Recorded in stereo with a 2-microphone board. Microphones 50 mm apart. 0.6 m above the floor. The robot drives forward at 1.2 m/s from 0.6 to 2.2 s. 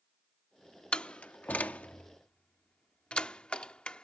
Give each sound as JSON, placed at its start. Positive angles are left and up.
{"t": 0.9, "sound": "a door slam", "side_deg": 20}